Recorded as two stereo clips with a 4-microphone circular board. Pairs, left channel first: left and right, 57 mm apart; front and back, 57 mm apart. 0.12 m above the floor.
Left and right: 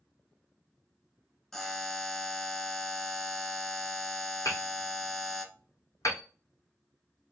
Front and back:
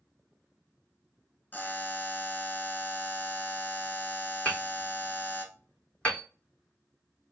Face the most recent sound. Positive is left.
turn(degrees=70)